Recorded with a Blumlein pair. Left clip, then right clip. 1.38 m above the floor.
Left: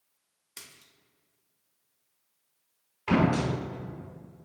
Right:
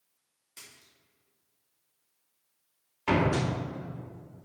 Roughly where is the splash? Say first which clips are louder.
Left 2 dB; ahead left.